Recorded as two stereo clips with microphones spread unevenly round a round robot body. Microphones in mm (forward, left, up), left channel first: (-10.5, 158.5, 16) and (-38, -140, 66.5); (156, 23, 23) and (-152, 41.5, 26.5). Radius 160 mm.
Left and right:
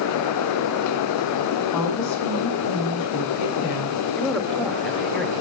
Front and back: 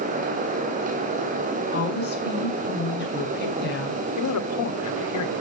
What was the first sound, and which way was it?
A woman speaking, 55° left.